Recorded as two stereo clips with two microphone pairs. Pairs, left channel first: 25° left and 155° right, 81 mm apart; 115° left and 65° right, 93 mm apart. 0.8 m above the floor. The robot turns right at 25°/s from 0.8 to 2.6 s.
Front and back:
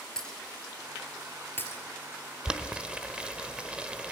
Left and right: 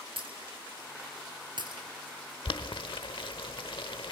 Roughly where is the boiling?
Behind left.